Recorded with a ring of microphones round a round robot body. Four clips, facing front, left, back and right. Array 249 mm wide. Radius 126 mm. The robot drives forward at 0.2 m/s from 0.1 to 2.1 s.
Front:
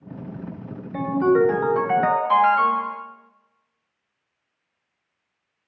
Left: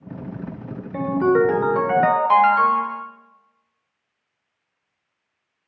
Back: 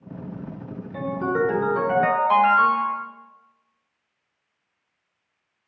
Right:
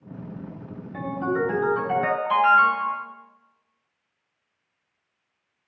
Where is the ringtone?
80° left, 1.2 m; by 3.0 s 90° left, 1.2 m.